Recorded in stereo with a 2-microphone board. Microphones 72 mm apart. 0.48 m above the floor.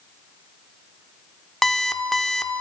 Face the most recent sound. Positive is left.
turn(degrees=5)  # may be behind; listen again after turning